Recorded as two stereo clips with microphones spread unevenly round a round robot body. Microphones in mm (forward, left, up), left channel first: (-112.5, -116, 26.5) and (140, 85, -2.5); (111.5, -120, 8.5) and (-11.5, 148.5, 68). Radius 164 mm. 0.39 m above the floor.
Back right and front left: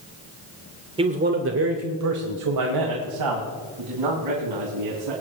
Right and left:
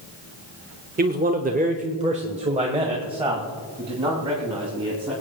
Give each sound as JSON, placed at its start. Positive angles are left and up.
{"t": 1.0, "sound": "a man speaking", "azimuth_deg": 70, "distance_m": 0.8}